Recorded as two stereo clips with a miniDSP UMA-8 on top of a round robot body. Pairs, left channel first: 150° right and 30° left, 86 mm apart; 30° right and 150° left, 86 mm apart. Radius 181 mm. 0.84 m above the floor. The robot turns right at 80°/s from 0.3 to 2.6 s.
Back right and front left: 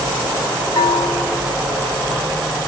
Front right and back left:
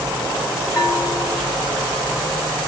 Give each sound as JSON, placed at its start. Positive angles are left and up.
{"t": 0.8, "sound": "a bell", "azimuth_deg": -100, "distance_m": 1.8}